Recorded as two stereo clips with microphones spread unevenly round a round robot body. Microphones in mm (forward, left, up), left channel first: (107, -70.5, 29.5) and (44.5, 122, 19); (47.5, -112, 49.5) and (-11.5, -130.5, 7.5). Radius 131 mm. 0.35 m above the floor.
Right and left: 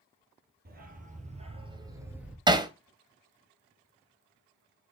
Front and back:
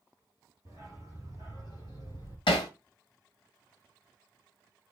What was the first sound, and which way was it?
A dog barking, 65° left.